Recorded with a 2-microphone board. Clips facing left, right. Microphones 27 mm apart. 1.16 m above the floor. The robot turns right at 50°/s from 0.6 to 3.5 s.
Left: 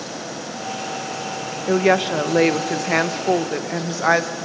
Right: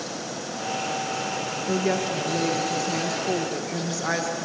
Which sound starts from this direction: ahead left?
A woman speaking, at 1.7 s.